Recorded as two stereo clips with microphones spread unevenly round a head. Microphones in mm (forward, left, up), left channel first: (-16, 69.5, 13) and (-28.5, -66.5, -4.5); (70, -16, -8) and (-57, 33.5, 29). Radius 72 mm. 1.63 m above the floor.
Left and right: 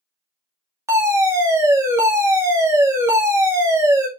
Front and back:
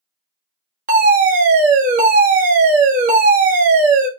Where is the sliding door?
No sliding door in this recording.